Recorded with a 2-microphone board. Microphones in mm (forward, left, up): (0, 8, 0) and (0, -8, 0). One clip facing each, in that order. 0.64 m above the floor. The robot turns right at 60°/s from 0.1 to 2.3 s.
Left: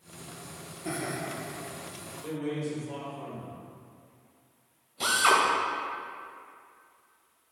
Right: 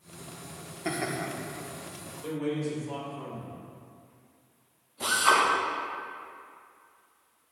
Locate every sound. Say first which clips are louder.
0.8 s laughter: right 2 dB; 50° right (ahead or behind), 1.1 m; by 1.3 s 60° right (ahead or behind), 1.1 m
2.2 s a man speaking: right 2 dB; 30° right (ahead or behind), 1.7 m; by 3.5 s 25° right (ahead or behind), 1.7 m
5.0 s a drill: even; 65° left (ahead or behind), 2 m